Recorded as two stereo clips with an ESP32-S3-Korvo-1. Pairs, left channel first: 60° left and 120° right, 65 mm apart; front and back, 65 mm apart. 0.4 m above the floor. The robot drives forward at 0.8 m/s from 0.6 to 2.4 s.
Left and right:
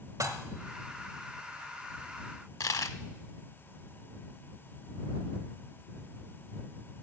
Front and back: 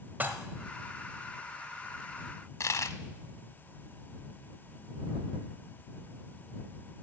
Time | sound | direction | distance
0.2 | dishes clattering | 120° right | 1.2 m
2.6 | a dropped coin | 35° left | 0.6 m